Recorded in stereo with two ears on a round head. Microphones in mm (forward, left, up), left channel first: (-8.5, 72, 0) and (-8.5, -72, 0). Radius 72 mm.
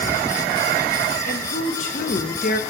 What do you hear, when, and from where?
1.2 s a woman speaking: 50° left (ahead or behind), 1.6 m; by 2.6 s 60° left (ahead or behind), 0.9 m